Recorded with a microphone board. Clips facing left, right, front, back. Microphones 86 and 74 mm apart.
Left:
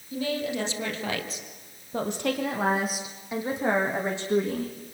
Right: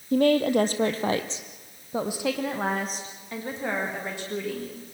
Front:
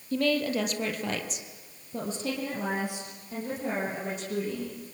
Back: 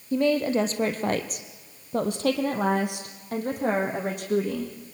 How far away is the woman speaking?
About 2.5 m.